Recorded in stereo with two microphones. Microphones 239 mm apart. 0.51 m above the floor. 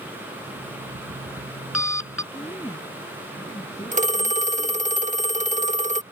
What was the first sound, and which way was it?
An alarm clock, 85° right.